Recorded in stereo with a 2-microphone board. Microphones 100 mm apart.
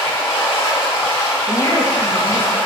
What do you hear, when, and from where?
0.0 s running water: 30° left (ahead or behind), 2.5 m
1.5 s a woman speaking: 35° left (ahead or behind), 1.3 m